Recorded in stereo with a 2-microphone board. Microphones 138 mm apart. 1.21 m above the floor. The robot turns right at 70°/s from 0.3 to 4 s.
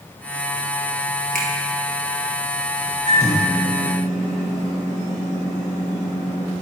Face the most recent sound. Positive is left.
turn(degrees=-110)